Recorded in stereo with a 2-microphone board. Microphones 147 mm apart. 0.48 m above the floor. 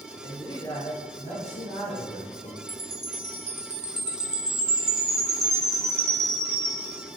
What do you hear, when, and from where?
0.2 s a man speaking: 20° left (ahead or behind), 1.1 m; by 2.6 s 55° left (ahead or behind), 2 m
2.7 s a chime: 45° right (ahead or behind), 0.6 m